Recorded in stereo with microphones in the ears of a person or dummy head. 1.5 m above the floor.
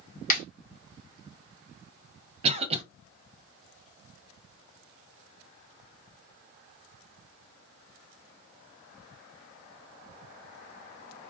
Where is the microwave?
I don't hear a microwave.